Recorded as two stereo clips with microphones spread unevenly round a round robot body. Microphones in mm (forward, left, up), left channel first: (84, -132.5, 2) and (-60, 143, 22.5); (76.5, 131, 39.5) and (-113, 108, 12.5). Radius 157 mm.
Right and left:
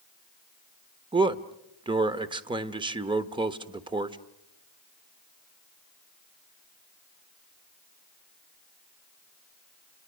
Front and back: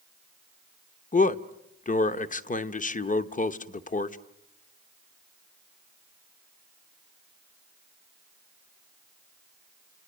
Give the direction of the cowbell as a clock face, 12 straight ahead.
No cowbell in this recording.